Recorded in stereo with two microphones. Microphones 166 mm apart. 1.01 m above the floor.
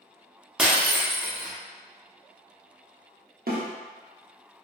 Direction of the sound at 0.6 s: 5° right (ahead or behind).